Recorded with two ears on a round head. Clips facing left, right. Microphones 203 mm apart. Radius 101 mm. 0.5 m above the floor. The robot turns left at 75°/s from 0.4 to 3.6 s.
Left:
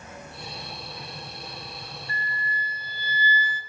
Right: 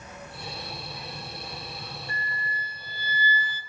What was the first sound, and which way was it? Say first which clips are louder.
An insect: even; 25° left.